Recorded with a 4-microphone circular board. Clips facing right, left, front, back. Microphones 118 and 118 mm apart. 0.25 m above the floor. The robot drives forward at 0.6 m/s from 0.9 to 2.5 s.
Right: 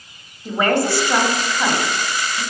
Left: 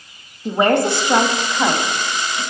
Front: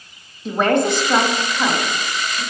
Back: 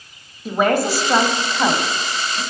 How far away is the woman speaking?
About 1.1 m.